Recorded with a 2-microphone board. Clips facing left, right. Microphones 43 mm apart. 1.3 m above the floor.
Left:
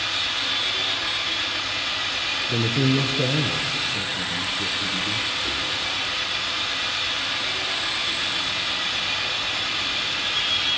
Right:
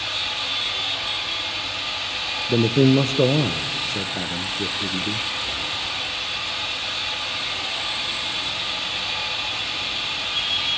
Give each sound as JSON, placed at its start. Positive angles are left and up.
{"t": 0.0, "sound": "an engine running", "side_deg": 80, "distance_m": 7.0}
{"t": 2.5, "sound": "a man speaking", "side_deg": -55, "distance_m": 0.7}